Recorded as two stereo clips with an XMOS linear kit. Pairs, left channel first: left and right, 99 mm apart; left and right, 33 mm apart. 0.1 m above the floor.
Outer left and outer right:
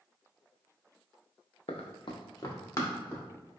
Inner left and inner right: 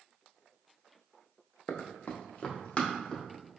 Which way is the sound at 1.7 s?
85° left.